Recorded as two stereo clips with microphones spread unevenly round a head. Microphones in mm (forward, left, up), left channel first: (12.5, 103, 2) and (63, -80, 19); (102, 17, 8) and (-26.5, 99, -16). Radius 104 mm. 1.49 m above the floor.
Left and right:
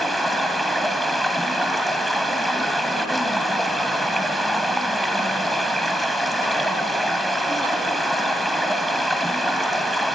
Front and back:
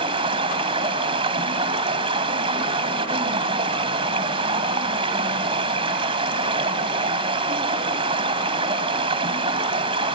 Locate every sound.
0.0 s running water: 160° right, 1.6 m